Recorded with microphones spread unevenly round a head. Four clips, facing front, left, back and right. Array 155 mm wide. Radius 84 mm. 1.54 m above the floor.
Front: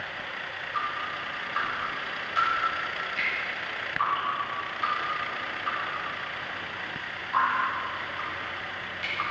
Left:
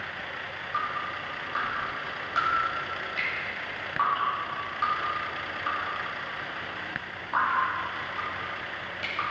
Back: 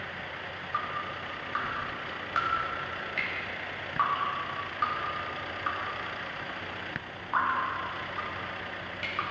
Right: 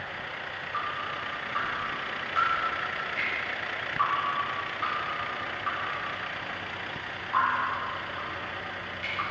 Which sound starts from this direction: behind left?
Dripping, at 0.7 s.